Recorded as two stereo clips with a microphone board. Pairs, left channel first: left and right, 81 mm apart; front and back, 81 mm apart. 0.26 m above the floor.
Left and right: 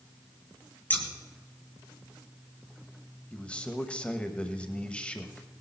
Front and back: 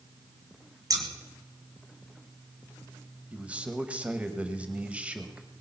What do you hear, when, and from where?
0.9 s scissors: 155° left, 2 m
3.3 s a man speaking: 135° left, 1.0 m